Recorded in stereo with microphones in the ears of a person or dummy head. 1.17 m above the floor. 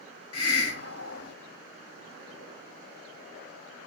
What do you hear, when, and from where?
0.3 s a hiss: 85° left, 1.5 m